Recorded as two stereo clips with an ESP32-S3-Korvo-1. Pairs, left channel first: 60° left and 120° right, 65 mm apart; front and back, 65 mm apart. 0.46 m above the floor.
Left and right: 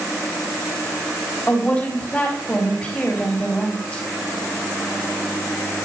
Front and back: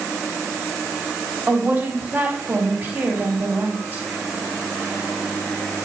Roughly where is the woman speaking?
Behind left.